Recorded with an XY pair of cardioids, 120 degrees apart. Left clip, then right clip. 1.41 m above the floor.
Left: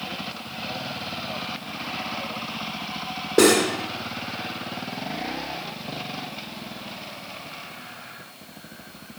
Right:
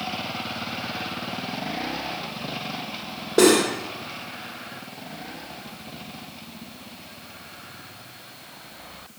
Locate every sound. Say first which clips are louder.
3.4 s cutlery clinking: even; straight ahead, 2.5 m